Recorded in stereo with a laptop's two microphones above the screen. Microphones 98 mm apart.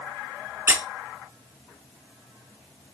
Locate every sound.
0.7 s a squeak: 30° right (ahead or behind), 0.7 m